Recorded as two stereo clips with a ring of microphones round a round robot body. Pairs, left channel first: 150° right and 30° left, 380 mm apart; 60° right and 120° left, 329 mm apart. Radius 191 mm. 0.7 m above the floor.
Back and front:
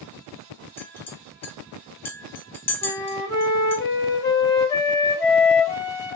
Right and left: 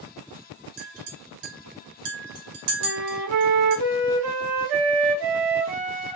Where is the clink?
125° left, 1.3 m.